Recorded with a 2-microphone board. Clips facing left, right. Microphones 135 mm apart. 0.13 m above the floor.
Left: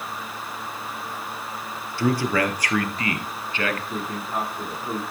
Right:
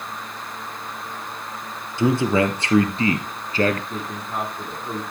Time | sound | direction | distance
2.0 | a man speaking | 20° right (ahead or behind) | 2.5 m
3.9 | a man speaking | centre (ahead or behind) | 7 m